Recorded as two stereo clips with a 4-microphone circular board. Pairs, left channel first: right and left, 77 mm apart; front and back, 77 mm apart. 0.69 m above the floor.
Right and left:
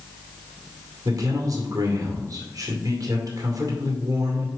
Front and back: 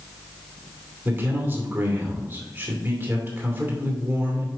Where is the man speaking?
120° left, 2 m.